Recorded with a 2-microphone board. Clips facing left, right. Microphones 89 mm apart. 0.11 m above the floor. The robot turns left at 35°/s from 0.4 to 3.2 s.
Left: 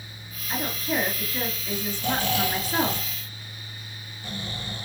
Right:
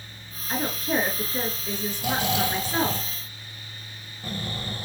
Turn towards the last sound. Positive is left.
turn(degrees=-50)